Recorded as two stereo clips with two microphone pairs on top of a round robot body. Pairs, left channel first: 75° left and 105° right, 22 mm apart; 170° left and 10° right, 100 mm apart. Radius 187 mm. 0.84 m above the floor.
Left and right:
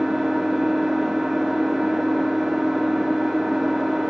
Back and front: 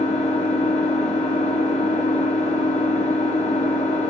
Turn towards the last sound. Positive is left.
turn(degrees=-175)